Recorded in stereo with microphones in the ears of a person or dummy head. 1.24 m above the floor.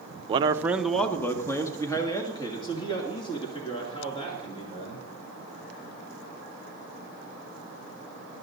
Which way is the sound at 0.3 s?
35° right (ahead or behind).